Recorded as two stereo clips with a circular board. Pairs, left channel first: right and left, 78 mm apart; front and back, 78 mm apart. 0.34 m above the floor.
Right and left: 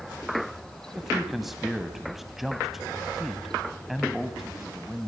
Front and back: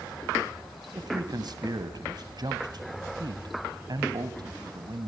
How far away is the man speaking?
About 1.9 m.